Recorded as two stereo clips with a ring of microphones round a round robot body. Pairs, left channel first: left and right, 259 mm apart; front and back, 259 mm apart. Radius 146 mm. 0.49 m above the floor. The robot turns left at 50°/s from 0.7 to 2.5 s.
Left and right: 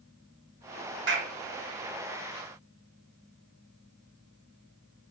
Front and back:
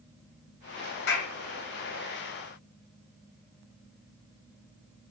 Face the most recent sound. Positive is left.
turn(degrees=-115)